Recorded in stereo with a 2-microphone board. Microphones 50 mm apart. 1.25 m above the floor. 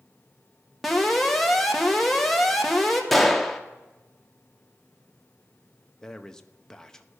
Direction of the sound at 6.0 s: 10° left (ahead or behind).